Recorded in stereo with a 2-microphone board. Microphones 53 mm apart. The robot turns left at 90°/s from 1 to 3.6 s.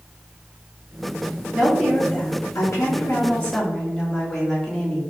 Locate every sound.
1.5 s a woman speaking: 160° right, 1.7 m; by 5.0 s 15° left, 1.7 m